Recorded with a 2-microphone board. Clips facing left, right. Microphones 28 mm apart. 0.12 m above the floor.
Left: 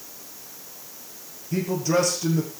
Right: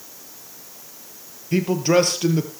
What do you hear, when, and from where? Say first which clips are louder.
1.5 s a man speaking: right 5 dB; 50° right (ahead or behind), 3 m